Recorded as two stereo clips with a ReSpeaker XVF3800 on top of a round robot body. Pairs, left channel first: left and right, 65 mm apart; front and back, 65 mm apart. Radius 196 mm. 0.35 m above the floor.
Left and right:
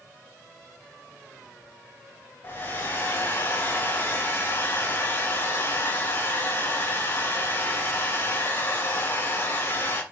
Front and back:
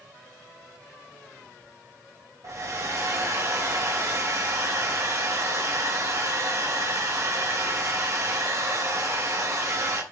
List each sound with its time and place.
2.4 s a hair dryer: 145° left, 3 m